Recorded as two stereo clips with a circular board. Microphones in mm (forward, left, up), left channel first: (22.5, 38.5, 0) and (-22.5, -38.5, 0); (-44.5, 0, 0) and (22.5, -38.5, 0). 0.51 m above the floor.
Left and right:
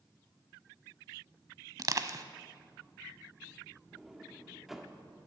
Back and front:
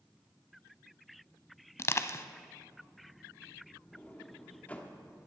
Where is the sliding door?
160° left, 1.1 m.